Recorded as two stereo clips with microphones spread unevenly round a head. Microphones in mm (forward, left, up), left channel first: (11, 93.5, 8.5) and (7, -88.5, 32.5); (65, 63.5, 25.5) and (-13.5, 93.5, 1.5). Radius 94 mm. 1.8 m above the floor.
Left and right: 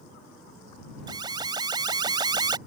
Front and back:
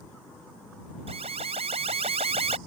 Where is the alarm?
160° right.